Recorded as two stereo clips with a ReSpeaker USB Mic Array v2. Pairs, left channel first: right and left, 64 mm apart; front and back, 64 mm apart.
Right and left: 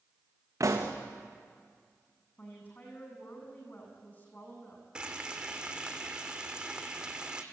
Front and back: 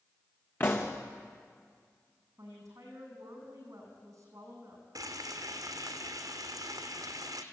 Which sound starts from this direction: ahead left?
A pop, at 0.6 s.